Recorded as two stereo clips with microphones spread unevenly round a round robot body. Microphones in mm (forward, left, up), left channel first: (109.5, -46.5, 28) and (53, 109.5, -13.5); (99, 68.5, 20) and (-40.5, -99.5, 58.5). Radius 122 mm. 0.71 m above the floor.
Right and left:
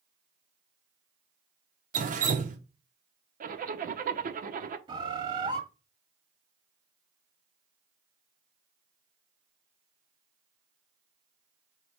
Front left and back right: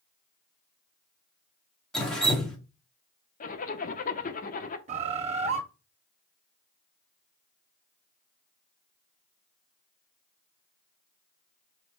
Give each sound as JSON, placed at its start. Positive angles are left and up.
{"t": 1.9, "sound": "dripping", "azimuth_deg": 130, "distance_m": 1.4}
{"t": 3.4, "sound": "a zipper", "azimuth_deg": 95, "distance_m": 1.0}
{"t": 4.9, "sound": "a bird", "azimuth_deg": -175, "distance_m": 0.6}